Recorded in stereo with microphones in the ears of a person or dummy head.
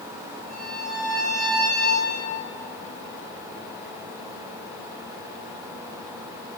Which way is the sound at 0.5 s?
10° left (ahead or behind).